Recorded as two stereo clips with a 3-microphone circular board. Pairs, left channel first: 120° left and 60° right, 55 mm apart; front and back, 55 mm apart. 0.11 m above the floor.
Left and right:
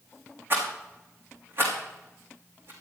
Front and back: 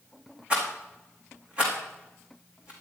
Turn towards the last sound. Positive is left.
turn(degrees=-110)